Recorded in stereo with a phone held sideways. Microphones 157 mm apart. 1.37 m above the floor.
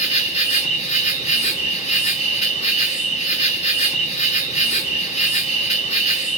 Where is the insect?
45° left (ahead or behind), 1.2 m.